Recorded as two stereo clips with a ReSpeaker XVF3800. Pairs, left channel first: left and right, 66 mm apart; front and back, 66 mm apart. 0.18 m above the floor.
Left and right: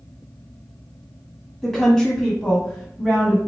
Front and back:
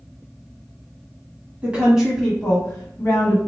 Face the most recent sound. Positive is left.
turn(degrees=20)